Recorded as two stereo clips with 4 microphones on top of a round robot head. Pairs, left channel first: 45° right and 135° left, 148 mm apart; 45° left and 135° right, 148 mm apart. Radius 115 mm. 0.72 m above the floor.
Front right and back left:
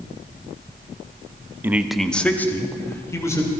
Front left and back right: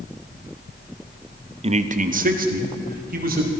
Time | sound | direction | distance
1.6 | a man speaking | 155° right | 0.9 m